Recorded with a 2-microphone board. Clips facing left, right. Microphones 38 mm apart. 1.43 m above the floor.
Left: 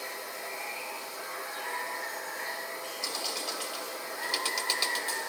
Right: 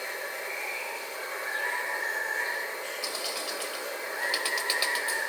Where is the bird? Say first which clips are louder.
Right 1 dB; 15° right (ahead or behind), 1.3 m.